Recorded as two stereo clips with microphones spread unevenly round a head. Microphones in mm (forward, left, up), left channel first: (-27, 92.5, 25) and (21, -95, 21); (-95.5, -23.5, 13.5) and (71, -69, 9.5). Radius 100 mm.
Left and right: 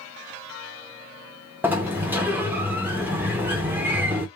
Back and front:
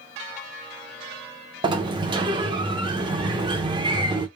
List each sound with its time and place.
1.6 s a sliding door: 5° right, 0.6 m